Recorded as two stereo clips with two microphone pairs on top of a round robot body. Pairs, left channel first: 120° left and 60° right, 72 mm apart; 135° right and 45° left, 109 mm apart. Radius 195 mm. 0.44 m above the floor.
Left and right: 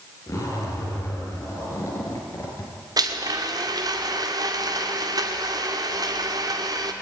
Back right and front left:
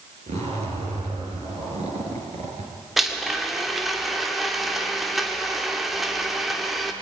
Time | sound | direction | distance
0.3 | a zipper | 70° left | 5 m
3.0 | a blender | 40° right | 2 m